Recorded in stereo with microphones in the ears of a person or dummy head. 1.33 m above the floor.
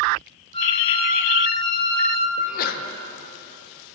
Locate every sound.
0.5 s a flute: 30° left (ahead or behind), 1.2 m
2.4 s a sneeze: 50° left (ahead or behind), 1.3 m